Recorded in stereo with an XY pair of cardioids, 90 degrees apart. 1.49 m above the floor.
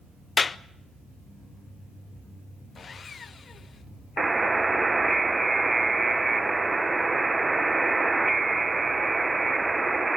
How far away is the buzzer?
About 1.0 m.